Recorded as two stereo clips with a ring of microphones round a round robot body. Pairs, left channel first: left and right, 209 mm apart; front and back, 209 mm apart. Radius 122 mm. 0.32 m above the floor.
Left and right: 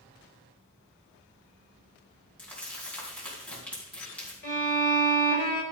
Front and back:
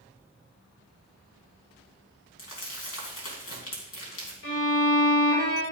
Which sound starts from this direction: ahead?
Crumpling, at 2.4 s.